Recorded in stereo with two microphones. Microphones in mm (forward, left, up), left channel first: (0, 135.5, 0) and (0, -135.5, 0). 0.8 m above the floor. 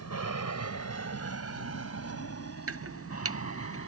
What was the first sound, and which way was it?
An aircraft, 60° left (ahead or behind).